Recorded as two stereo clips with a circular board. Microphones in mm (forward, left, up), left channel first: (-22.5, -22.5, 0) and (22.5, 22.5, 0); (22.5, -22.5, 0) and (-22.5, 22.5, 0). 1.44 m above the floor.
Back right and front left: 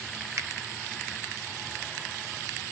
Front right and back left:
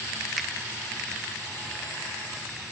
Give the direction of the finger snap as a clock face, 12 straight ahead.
10 o'clock.